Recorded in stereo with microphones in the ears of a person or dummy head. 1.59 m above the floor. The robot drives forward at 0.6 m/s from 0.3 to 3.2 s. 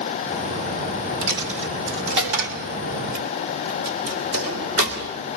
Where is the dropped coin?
65° right (ahead or behind), 2 m; by 5.2 s 50° right (ahead or behind), 2.5 m.